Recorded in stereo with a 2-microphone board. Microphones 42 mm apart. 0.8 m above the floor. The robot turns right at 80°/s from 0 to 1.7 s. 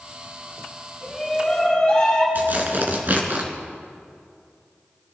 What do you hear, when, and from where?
1.0 s a shout: 30° right, 7 m; by 2.2 s 25° left, 7 m
2.4 s tearing paper: 45° right (ahead or behind), 2.5 m